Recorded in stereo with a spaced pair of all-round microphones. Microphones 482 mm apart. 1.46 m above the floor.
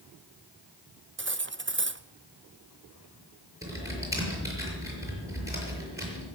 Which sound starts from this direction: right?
Cutlery clinking, at 1.2 s.